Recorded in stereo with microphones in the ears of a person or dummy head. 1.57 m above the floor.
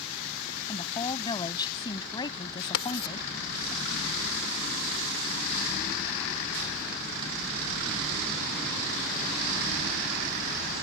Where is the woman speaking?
20° left (ahead or behind).